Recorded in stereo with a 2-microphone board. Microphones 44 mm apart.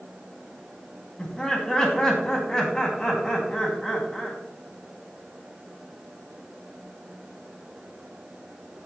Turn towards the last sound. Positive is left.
turn(degrees=15)  # may be behind; listen again after turning